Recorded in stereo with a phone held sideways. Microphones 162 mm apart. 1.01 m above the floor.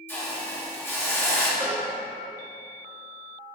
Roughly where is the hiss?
Centre.